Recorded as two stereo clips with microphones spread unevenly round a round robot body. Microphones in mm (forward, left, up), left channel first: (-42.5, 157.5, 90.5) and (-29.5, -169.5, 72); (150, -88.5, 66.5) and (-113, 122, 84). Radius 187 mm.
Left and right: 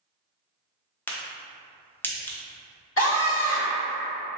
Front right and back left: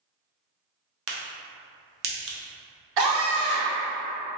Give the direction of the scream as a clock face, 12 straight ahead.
7 o'clock.